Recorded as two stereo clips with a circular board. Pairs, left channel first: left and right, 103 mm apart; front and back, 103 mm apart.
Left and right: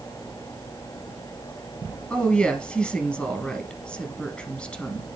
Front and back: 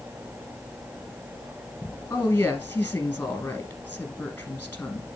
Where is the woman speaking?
30° left, 1.3 m.